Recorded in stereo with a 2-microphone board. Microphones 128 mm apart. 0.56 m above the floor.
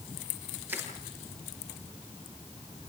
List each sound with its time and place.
0.7 s crushing: 15° right (ahead or behind), 8 m